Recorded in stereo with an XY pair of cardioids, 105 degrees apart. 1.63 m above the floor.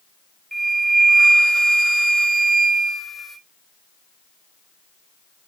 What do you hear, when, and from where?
0.5 s a flute: 5° right, 1.6 m